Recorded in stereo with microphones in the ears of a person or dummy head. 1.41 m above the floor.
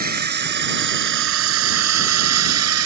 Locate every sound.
0.0 s a drone: 45° right (ahead or behind); by 2.9 s 85° right